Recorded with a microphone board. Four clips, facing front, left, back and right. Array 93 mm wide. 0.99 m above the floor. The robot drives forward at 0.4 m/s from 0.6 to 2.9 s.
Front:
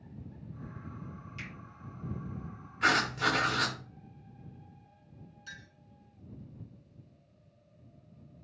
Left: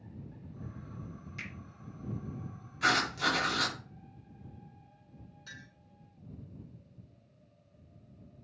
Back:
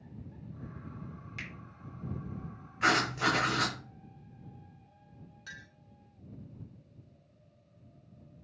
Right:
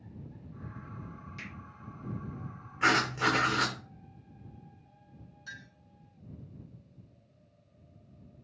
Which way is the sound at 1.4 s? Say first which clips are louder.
Left 2 dB, back 2 dB; straight behind.